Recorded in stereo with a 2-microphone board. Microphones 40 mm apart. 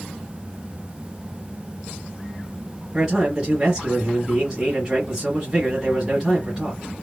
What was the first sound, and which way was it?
A man speaking, 15° right (ahead or behind).